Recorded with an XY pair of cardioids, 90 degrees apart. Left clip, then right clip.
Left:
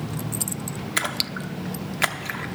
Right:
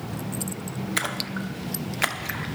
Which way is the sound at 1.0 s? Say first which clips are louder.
Left 3 dB; 15° left.